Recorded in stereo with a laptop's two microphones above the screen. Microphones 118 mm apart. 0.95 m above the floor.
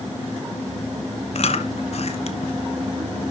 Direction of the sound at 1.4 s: 60° left (ahead or behind).